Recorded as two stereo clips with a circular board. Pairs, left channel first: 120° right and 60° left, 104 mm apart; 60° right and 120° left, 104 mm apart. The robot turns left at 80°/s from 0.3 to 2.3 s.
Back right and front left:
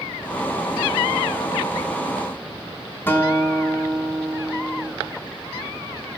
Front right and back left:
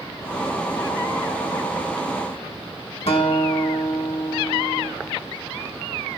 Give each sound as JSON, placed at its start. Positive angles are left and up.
{"t": 3.1, "sound": "a guitar", "azimuth_deg": -50, "distance_m": 1.4}